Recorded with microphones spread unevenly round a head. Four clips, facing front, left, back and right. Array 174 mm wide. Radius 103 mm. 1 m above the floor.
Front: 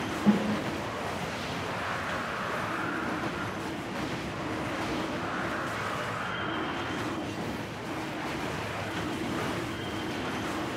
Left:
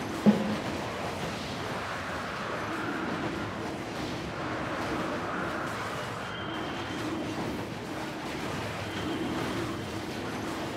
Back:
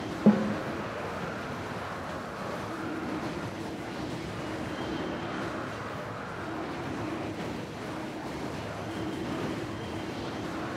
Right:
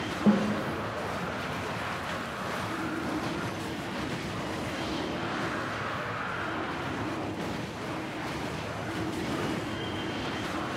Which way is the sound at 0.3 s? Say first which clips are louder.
Left 1 dB, back 3 dB; 165° left.